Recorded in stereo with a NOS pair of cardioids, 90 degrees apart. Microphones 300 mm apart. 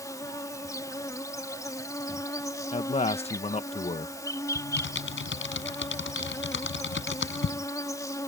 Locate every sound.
0.0 s an insect: 10° left
2.7 s a man speaking: 25° left
4.5 s typing on a keyboard: 45° left